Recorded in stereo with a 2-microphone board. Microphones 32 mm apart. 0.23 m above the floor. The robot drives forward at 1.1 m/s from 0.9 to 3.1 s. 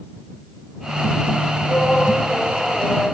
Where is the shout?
35° left (ahead or behind), 7 m; by 3.1 s 30° left (ahead or behind), 8 m.